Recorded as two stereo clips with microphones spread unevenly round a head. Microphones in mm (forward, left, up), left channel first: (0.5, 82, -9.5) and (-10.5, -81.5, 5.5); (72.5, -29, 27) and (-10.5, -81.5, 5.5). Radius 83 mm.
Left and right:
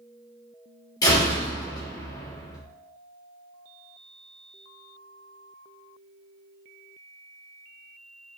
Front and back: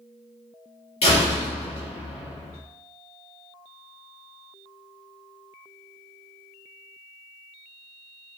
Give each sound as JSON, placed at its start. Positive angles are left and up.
{"t": 1.0, "sound": "a door slam", "azimuth_deg": 20, "distance_m": 2.5}